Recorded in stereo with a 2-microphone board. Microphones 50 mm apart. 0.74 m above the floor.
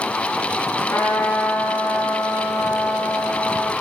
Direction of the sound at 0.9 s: 80° left.